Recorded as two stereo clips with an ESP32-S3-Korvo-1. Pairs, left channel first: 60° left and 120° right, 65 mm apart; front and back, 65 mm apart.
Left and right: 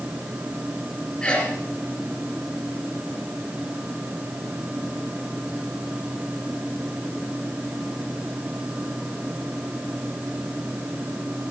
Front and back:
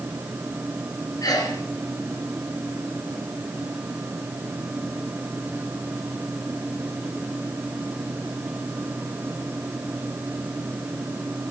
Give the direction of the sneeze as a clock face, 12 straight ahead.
1 o'clock.